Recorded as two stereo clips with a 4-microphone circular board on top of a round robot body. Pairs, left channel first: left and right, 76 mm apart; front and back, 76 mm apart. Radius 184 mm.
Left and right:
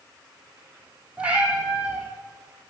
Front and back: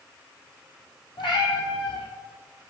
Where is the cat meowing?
15° right, 2 m.